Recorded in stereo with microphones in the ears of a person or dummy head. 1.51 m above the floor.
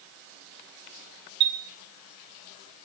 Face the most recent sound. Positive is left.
turn(degrees=-60)  # may be behind; listen again after turning